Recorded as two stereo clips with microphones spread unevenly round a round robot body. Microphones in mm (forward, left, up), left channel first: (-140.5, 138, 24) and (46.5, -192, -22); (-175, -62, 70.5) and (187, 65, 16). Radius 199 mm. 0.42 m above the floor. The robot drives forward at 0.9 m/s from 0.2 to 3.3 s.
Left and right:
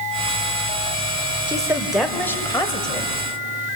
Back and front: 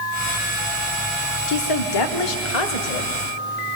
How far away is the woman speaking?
About 1.3 m.